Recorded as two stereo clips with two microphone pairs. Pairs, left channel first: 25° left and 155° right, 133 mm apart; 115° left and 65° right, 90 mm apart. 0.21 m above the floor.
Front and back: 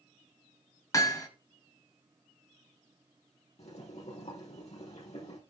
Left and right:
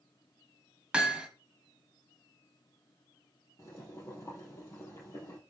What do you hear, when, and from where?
0.9 s hammering: 5° left, 1.4 m
3.6 s boiling: 60° left, 4 m